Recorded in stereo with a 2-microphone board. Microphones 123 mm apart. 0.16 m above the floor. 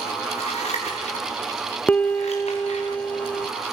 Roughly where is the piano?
Centre.